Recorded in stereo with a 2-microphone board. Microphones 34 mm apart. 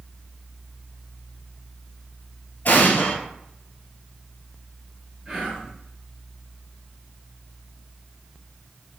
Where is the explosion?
60° left (ahead or behind), 1.0 m.